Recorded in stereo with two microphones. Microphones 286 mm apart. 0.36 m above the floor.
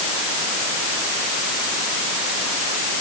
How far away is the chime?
I don't hear a chime.